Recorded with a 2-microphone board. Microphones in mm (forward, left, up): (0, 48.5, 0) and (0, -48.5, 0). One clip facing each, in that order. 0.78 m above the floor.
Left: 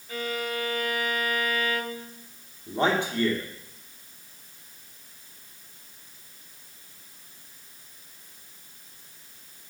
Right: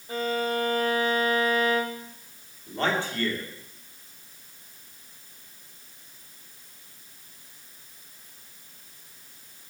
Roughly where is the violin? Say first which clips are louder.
Right 4 dB; right.